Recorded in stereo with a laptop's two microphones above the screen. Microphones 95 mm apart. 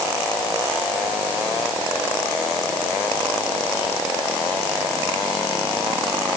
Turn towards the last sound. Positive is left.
No sound to turn to.